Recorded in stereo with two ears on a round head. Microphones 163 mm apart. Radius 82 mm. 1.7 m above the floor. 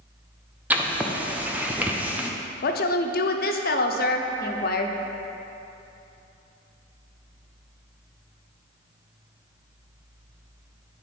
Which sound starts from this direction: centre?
Writing, at 0.7 s.